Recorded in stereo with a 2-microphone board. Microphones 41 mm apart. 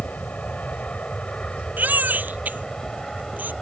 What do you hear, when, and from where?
0.0 s an aircraft: 35° left (ahead or behind); by 3.6 s 10° left (ahead or behind)
1.8 s a baby crying: 45° right (ahead or behind)